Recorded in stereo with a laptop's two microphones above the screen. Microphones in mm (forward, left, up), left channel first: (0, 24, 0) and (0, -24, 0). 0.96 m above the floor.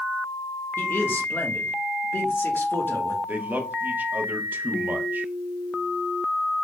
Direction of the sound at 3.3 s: 40° right (ahead or behind).